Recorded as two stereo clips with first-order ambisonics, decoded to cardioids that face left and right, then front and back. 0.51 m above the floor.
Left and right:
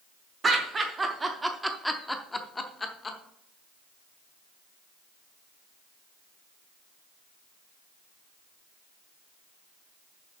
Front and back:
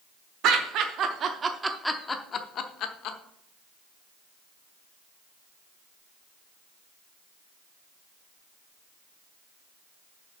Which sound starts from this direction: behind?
Laughter, at 0.4 s.